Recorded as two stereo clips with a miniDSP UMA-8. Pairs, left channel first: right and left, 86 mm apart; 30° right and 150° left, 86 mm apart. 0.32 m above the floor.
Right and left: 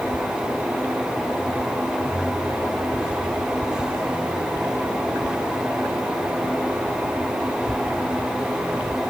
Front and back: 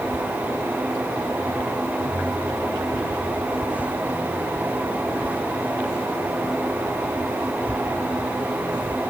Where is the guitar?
No guitar in this recording.